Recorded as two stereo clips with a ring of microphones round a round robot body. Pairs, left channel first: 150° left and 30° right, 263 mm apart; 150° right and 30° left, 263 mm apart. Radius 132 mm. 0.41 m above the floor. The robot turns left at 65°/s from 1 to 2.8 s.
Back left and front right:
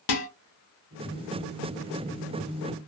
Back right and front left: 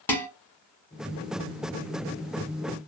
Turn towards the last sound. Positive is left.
turn(degrees=10)